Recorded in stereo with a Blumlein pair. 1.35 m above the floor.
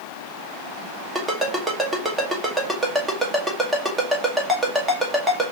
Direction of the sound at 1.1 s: 10° right.